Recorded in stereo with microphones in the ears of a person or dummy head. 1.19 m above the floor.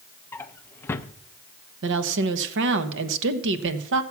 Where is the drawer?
15° left (ahead or behind), 0.5 m.